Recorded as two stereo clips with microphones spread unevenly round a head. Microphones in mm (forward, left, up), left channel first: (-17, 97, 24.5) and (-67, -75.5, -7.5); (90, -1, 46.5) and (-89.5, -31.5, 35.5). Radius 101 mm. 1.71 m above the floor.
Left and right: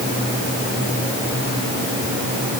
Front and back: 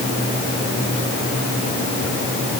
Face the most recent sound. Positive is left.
No sound to turn to.